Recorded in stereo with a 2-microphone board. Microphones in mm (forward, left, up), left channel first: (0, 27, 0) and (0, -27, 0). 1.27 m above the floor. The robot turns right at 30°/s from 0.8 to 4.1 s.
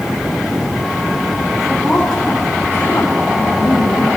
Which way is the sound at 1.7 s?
Straight ahead.